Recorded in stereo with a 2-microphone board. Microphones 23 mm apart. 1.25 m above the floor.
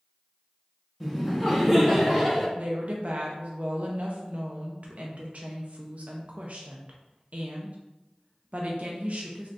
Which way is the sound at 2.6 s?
60° right (ahead or behind).